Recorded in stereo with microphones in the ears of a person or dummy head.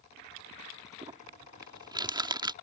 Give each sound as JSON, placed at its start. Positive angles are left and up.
{"t": 1.0, "sound": "crumpling", "side_deg": -30}